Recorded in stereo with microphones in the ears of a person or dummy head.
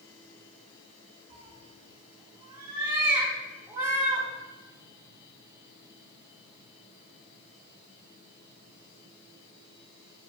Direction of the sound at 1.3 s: 20° right (ahead or behind).